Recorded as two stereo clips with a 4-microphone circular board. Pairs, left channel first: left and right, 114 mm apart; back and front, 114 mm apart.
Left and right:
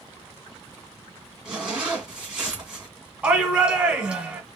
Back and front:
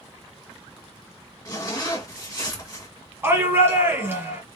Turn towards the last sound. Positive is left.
turn(degrees=-25)